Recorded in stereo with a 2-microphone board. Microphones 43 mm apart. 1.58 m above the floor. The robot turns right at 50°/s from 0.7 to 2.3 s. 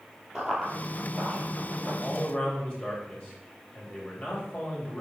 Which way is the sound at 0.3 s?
Centre (ahead or behind).